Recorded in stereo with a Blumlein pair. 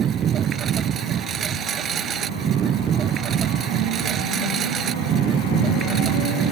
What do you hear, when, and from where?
0.0 s a lawn mower: 25° right